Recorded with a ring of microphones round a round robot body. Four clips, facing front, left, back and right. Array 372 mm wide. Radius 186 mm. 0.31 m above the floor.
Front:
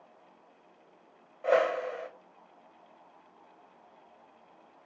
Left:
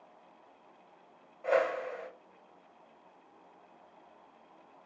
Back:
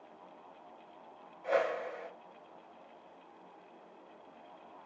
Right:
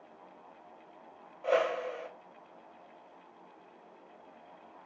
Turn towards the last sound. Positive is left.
turn(degrees=-15)